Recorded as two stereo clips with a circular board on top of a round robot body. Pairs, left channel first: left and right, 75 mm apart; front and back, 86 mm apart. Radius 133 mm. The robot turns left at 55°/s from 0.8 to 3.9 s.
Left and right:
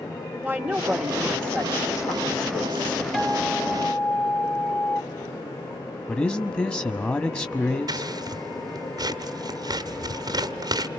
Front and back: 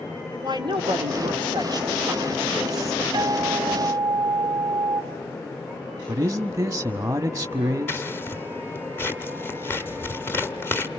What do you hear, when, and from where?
0.4 s a woman speaking: 155° right, 1.9 m; by 3.0 s 80° left, 1.9 m
3.1 s a guitar: 175° left, 1.2 m; by 5.0 s 130° left, 1.2 m
6.1 s a man speaking: 145° left, 1.3 m
7.9 s scissors: 65° right, 1.5 m